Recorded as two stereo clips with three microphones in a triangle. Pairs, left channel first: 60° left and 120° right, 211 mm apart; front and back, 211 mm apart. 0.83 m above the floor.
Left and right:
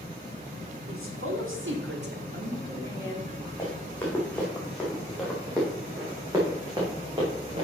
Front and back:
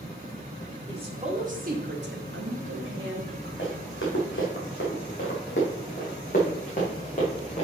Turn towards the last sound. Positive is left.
turn(degrees=-60)